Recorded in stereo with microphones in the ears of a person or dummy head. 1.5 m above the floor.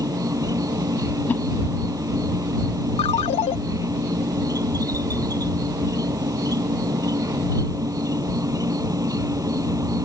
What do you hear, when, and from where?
0.0 s an insect: 20° right (ahead or behind)
1.3 s a whoosh: 15° left (ahead or behind)
3.0 s a ringtone: 30° left (ahead or behind)